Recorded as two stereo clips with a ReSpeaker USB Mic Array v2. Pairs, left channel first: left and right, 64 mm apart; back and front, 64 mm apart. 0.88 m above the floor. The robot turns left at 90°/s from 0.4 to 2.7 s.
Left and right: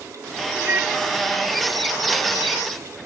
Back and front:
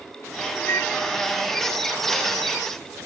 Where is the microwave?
140° right; by 0.9 s 165° right.